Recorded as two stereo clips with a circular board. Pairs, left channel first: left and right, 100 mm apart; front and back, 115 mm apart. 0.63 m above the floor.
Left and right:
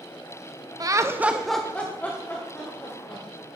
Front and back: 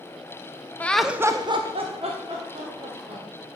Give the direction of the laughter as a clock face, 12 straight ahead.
2 o'clock.